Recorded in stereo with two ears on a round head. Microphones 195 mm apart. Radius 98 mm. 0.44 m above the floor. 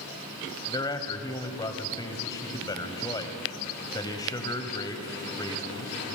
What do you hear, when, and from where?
0.7 s a man speaking: 20° left (ahead or behind), 2 m